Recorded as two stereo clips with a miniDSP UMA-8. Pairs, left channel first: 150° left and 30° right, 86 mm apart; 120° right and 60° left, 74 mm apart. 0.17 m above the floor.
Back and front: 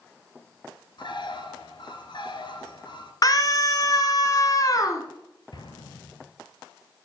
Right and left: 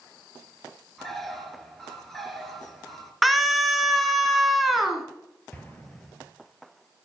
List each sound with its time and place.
1.0 s a bird: 155° left, 2 m
3.2 s a scream: 150° left, 1.7 m
5.5 s an explosion: 170° left, 2.5 m